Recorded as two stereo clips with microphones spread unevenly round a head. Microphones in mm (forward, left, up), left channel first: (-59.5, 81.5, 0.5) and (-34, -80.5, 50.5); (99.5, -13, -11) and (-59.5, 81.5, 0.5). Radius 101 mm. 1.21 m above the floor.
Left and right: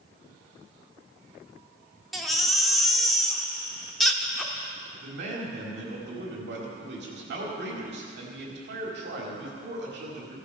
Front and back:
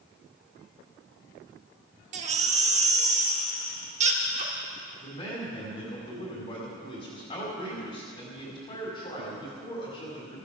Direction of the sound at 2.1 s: 160° right.